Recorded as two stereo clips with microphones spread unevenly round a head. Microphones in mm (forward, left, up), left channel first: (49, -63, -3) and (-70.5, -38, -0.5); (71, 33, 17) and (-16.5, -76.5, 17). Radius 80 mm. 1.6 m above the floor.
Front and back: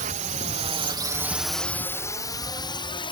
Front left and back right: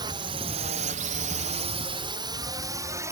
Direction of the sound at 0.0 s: 170° left.